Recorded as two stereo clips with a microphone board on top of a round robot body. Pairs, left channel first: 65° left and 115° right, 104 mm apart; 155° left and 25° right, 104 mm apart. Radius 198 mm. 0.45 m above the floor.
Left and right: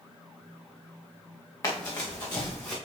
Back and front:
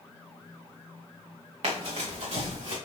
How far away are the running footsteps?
About 2.5 m.